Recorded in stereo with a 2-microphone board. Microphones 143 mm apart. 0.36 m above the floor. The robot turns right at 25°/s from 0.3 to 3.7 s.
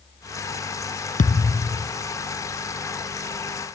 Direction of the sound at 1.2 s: 70° left (ahead or behind).